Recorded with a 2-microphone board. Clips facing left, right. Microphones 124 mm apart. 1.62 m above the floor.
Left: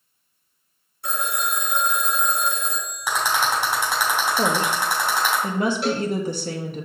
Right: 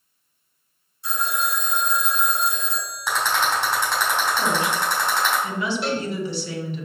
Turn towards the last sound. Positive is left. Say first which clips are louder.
# left 2 dB
turn(degrees=0)  # may be behind; listen again after turning